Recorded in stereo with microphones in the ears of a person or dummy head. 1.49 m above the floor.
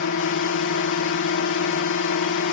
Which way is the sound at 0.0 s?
60° left (ahead or behind).